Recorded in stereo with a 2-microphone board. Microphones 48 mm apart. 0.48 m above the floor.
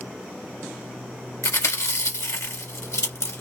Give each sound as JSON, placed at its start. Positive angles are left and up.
{"t": 1.4, "sound": "chewing", "side_deg": 80, "distance_m": 2.0}